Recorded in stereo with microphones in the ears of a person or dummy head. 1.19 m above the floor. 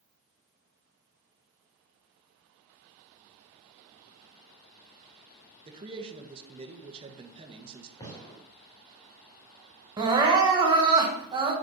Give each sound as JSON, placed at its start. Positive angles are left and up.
{"t": 5.7, "sound": "a man speaking", "side_deg": -25, "distance_m": 1.2}
{"t": 8.0, "sound": "a gunshot", "side_deg": 20, "distance_m": 2.0}
{"t": 10.0, "sound": "crying", "side_deg": -20, "distance_m": 1.2}